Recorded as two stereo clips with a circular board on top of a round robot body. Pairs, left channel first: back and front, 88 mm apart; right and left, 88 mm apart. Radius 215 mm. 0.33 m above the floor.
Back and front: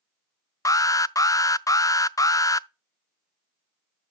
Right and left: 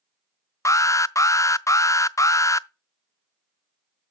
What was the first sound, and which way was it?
An alarm, 135° right.